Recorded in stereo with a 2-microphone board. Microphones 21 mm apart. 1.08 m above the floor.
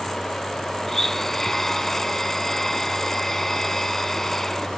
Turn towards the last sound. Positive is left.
turn(degrees=15)  # may be behind; listen again after turning